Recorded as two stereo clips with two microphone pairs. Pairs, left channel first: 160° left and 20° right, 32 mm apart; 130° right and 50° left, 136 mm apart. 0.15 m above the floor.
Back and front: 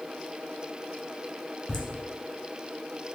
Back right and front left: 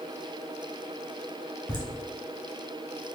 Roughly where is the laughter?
Behind right.